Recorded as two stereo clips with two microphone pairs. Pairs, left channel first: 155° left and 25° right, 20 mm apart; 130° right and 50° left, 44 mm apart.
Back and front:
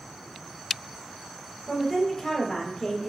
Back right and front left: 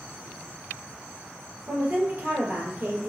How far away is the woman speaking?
About 1.7 m.